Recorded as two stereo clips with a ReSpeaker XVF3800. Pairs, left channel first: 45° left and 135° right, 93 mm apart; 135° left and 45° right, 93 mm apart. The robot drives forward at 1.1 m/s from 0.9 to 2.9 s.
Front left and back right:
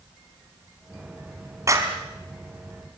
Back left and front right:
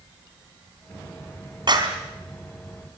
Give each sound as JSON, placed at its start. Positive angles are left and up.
{"t": 1.7, "sound": "a clap", "azimuth_deg": -80, "distance_m": 3.5}